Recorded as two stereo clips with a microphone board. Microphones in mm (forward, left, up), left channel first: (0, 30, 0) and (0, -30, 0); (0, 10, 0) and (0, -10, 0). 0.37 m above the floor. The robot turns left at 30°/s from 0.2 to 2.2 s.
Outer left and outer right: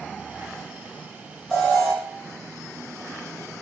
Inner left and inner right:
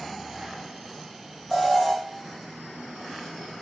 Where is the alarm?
10° left (ahead or behind), 1.4 m; by 1.9 s 20° left (ahead or behind), 1.4 m.